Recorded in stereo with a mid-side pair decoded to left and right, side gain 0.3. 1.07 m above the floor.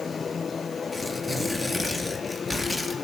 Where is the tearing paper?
5° right, 4 m.